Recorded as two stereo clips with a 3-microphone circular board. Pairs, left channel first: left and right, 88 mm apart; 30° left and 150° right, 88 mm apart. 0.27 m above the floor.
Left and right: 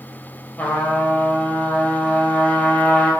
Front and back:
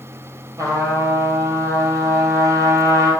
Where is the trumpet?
160° left, 1.8 m.